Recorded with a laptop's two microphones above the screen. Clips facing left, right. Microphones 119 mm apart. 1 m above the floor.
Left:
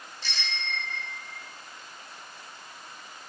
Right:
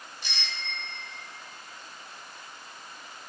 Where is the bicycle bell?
15° right (ahead or behind), 3.5 m; by 1.4 s 30° right (ahead or behind), 4 m.